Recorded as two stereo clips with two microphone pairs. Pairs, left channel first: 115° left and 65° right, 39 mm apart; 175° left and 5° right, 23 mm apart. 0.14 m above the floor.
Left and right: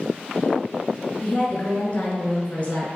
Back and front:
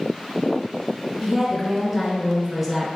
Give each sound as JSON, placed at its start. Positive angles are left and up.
{"t": 1.2, "sound": "a woman speaking", "azimuth_deg": 95, "distance_m": 1.5}